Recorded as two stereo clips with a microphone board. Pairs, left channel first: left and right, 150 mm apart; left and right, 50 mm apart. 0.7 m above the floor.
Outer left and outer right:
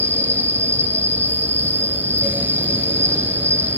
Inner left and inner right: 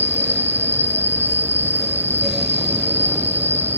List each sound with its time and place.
0.0 s an insect: 45° right (ahead or behind), 1.2 m